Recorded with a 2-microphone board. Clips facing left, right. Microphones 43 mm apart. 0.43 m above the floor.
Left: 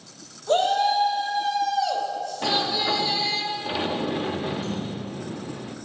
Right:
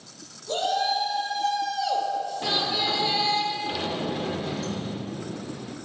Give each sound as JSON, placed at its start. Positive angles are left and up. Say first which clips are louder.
{"t": 0.5, "sound": "a shout", "louder": "left 5 dB", "side_deg": 35, "distance_m": 1.0}
{"t": 2.4, "sound": "a sliding door", "louder": "left 5 dB", "side_deg": 20, "distance_m": 0.5}